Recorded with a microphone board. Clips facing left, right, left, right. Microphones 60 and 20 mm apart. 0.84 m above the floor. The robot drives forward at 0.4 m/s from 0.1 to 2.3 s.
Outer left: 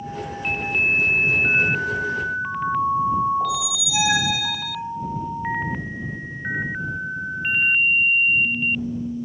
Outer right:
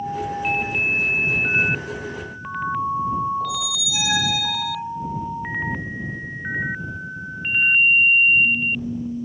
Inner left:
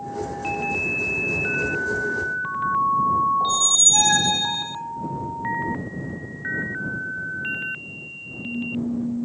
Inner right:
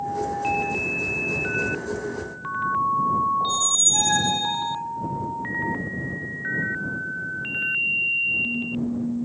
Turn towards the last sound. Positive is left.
turn(degrees=25)  # may be behind; listen again after turning